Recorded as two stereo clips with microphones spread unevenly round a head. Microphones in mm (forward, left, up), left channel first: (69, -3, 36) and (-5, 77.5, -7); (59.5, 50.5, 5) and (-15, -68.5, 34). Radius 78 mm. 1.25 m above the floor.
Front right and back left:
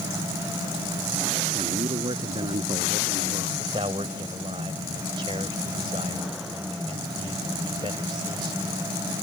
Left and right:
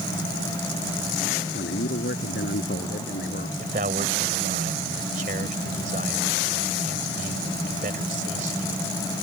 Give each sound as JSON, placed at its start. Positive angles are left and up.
{"t": 1.5, "sound": "a man speaking", "azimuth_deg": 85}
{"t": 3.6, "sound": "a man speaking", "azimuth_deg": -165}